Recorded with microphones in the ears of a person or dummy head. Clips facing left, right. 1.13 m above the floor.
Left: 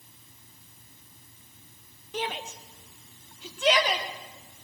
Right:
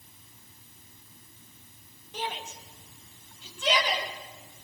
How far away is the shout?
About 1.9 m.